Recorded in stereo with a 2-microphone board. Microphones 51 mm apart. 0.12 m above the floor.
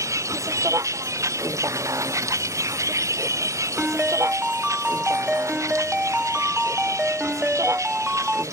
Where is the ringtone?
15° right (ahead or behind).